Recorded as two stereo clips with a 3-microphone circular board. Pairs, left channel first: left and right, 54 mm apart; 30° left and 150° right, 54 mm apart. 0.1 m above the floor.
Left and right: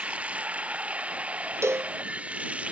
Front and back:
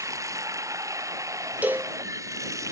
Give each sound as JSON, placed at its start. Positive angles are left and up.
{"t": 0.0, "sound": "running water", "azimuth_deg": -155}
{"t": 1.6, "sound": "a cowbell", "azimuth_deg": -100}